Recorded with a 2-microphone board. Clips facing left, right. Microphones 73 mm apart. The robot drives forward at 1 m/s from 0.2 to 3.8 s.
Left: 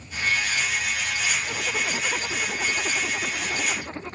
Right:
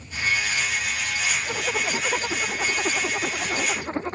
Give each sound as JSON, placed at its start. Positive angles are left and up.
{"t": 1.5, "sound": "a zipper", "side_deg": -25}